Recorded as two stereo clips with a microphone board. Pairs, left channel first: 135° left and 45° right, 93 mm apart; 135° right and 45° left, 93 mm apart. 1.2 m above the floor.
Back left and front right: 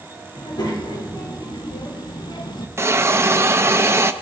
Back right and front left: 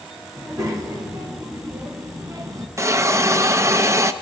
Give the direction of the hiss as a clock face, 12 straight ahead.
12 o'clock.